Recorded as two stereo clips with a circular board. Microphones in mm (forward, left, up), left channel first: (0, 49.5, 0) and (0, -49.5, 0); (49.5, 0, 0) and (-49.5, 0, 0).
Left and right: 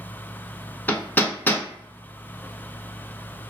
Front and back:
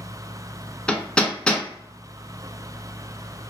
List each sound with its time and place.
0.9 s hammering: 60° left, 0.6 m